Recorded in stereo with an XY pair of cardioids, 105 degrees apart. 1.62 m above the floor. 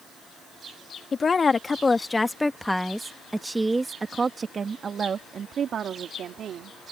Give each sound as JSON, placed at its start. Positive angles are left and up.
{"t": 1.1, "sound": "a woman speaking", "azimuth_deg": 35}